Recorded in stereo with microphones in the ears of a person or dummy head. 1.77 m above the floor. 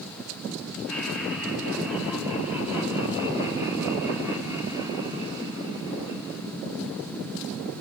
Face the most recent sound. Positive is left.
turn(degrees=-25)  # may be behind; listen again after turning